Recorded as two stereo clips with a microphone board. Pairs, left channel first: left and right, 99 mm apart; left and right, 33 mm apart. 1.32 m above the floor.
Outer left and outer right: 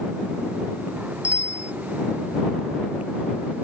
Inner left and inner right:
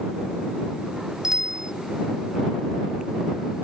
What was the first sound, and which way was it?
A bicycle bell, 15° right (ahead or behind).